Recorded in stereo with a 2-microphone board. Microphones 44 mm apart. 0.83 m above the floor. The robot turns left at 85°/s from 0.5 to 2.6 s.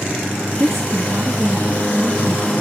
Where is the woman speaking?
70° right, 1.2 m; by 2.5 s 125° left, 1.2 m.